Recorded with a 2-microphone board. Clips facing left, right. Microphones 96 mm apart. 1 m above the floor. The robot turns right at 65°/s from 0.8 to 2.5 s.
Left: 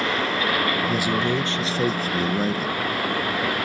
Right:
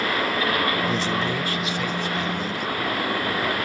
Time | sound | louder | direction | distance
0.9 | a man speaking | left 2 dB | 5° left | 0.5 m